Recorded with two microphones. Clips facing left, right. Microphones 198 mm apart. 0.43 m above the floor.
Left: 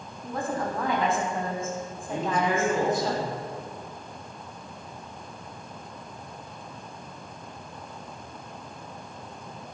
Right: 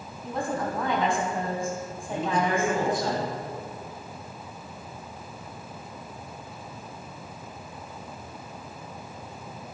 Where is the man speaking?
25° left (ahead or behind), 4.5 m.